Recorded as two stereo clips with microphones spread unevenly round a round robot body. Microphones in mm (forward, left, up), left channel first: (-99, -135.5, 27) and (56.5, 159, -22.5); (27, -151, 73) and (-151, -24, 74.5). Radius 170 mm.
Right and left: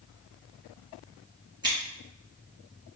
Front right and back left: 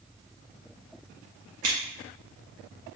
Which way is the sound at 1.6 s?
140° left.